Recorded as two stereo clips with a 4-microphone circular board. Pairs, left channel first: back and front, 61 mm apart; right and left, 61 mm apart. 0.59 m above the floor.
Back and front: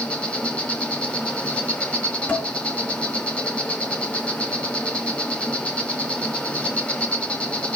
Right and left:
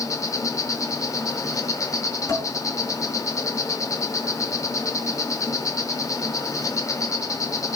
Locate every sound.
0.0 s an insect: 110° right, 2 m
2.3 s dishes clattering: 115° right, 5.5 m